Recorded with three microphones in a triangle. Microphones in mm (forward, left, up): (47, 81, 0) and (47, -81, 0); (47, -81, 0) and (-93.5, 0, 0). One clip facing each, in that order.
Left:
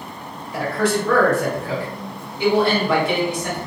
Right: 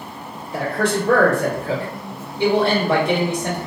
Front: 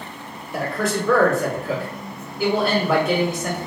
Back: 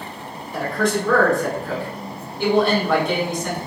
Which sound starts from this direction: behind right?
A man speaking, at 0.5 s.